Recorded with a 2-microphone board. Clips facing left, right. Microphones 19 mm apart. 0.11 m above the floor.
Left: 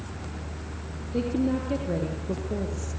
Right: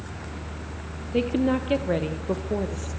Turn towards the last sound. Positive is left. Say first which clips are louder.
# right 3 dB
turn(degrees=-60)  # may be behind; listen again after turning